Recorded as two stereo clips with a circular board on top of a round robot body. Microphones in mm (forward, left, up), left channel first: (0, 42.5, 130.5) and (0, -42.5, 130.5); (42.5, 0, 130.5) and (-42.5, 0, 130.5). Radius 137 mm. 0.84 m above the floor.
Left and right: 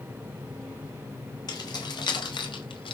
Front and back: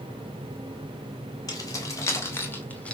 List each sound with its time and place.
1.5 s keys jangling: 50° left, 4 m; by 3.0 s 80° left, 2.5 m